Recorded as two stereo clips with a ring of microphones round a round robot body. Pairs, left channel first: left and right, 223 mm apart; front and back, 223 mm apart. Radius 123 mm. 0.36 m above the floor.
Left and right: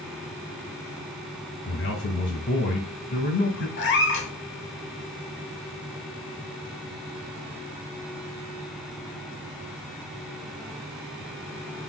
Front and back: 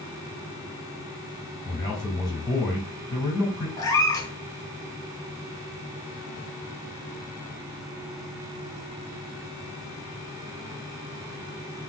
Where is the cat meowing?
70° left, 0.8 m.